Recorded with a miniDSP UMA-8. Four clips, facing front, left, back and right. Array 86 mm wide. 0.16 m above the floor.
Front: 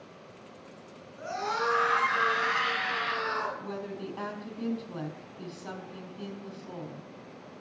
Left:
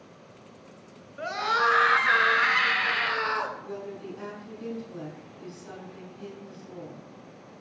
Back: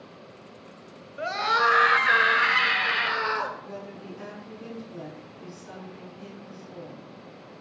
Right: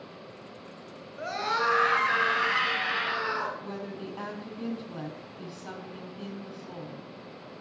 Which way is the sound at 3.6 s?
25° right.